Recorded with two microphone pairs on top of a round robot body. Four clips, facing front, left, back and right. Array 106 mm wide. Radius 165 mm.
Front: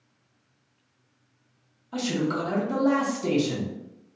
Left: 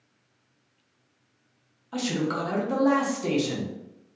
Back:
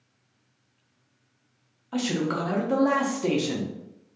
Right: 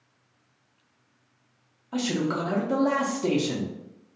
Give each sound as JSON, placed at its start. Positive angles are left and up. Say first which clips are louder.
{"t": 1.9, "sound": "a man speaking", "louder": "right 1 dB, even", "azimuth_deg": 180, "distance_m": 0.7}